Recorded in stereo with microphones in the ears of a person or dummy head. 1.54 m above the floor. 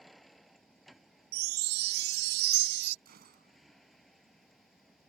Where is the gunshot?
55° right (ahead or behind).